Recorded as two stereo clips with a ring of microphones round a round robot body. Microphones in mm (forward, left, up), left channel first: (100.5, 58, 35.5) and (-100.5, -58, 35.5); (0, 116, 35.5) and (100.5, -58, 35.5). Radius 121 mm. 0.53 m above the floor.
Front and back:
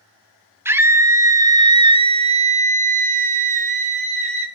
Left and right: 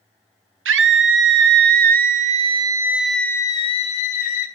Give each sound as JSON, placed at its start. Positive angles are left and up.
{"t": 0.7, "sound": "a scream", "azimuth_deg": -70, "distance_m": 1.4}